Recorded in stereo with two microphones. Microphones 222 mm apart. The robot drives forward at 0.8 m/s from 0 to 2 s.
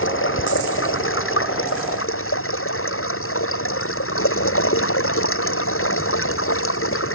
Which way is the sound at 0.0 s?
65° left (ahead or behind).